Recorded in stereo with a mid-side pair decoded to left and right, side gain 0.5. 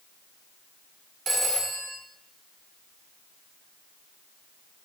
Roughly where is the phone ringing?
Ahead right.